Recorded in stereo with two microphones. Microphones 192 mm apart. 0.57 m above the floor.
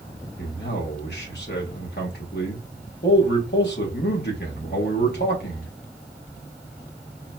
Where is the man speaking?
55° left (ahead or behind), 1.1 m.